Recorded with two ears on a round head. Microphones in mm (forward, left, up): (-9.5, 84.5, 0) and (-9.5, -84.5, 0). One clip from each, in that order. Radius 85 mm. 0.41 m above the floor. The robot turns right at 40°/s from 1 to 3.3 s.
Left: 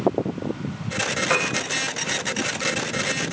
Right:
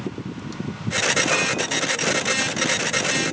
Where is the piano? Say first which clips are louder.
Right 1 dB; 50° left (ahead or behind), 8.5 m; by 1.5 s 40° left (ahead or behind), 8.5 m.